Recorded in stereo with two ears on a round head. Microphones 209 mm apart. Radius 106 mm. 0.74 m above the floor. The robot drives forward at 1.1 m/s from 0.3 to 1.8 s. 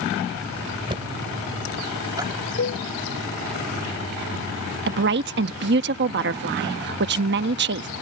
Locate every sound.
0.9 s knocking: 20° right (ahead or behind); by 2.3 s 15° right (ahead or behind)
2.6 s a cowbell: 50° left (ahead or behind)
4.9 s a woman speaking: 45° right (ahead or behind)